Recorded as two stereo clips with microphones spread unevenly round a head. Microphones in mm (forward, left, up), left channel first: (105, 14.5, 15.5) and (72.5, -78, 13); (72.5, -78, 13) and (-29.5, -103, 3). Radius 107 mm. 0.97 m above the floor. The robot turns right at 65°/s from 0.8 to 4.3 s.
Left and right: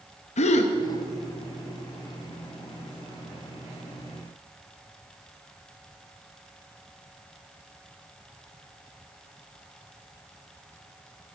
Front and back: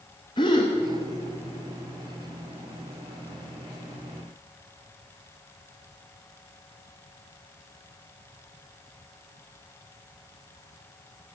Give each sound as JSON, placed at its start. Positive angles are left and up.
{"t": 0.4, "sound": "a gasp", "azimuth_deg": 85, "distance_m": 0.7}